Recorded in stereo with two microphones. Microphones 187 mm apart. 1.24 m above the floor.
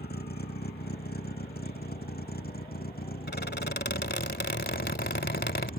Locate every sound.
0.0 s a vehicle: 60° left (ahead or behind); by 5.8 s 55° left (ahead or behind)
3.3 s a squeak: 65° left (ahead or behind)